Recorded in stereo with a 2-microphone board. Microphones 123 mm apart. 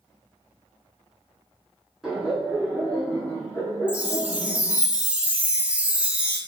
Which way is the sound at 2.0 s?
Centre (ahead or behind).